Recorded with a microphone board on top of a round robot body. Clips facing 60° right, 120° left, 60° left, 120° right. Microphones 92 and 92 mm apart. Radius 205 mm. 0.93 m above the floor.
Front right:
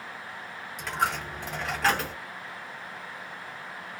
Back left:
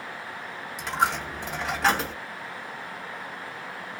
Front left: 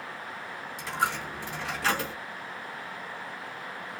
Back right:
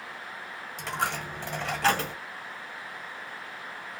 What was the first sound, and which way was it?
A dropped coin, 150° right.